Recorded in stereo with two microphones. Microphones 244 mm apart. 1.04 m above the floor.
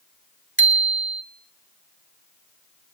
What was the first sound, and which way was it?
A bicycle bell, 55° right (ahead or behind).